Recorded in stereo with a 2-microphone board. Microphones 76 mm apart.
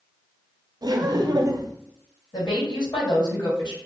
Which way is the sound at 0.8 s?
60° right (ahead or behind).